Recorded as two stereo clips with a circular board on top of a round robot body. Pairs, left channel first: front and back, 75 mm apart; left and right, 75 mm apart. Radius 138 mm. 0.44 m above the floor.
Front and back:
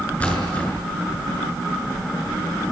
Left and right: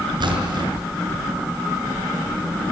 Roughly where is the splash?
Right.